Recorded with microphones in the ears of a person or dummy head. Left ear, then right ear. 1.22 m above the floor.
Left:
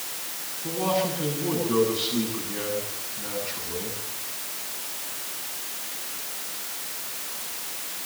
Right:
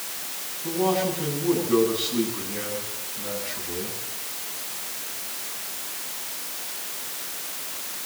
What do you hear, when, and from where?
0.6 s a man speaking: centre (ahead or behind), 10 m